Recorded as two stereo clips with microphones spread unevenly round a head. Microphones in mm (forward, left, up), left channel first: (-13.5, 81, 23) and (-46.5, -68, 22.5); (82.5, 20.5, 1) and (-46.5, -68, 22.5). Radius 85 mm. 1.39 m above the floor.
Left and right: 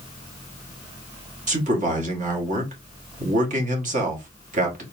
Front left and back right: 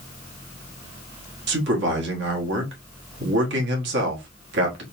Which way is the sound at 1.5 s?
140° right.